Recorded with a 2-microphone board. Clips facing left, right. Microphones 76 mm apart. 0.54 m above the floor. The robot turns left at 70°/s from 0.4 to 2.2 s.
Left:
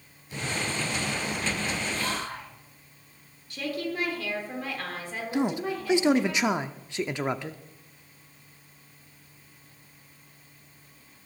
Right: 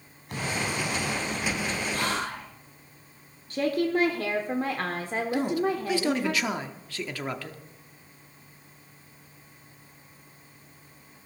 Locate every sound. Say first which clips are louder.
0.3 s an explosion: right 2 dB; 100° right, 3.5 m; by 1.8 s 160° left, 3.5 m
1.9 s whispering: right 2 dB; 65° right (ahead or behind), 5 m; by 2.5 s 80° right, 5 m
3.5 s a woman speaking: right 7 dB; 45° right (ahead or behind), 1.2 m
5.3 s a man speaking: even; 20° left (ahead or behind), 0.7 m